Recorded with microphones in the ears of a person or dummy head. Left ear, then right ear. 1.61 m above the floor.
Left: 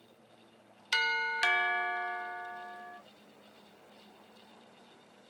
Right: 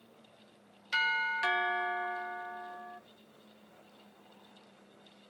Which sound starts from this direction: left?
A doorbell, at 0.9 s.